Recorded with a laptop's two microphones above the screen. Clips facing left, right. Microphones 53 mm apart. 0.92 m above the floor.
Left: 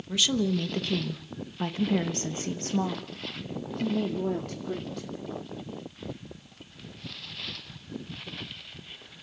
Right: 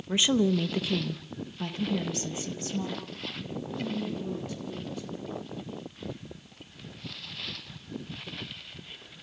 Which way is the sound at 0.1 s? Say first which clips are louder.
Right 2 dB; 30° right (ahead or behind).